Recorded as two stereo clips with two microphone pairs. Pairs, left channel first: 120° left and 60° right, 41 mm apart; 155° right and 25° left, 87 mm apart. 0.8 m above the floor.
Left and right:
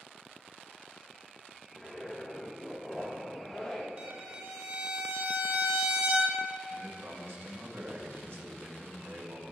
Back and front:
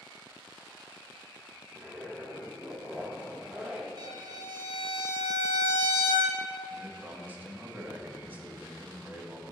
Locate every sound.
1.7 s a zipper: 70° left, 1.0 m
4.0 s a violin: 5° right, 0.8 m
6.7 s a man speaking: 40° right, 1.0 m